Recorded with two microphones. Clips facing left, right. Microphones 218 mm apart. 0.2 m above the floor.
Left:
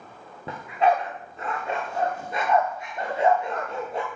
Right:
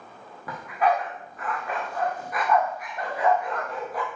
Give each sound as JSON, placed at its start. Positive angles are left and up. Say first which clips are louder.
{"t": 0.5, "sound": "a dog barking", "louder": "left 2 dB", "side_deg": 25, "distance_m": 9.0}